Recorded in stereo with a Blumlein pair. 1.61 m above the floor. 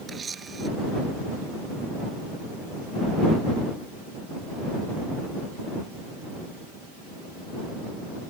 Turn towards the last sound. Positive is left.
turn(degrees=-15)